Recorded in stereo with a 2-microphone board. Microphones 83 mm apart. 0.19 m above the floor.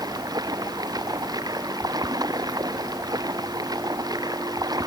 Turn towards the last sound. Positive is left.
turn(degrees=-50)  # may be behind; listen again after turning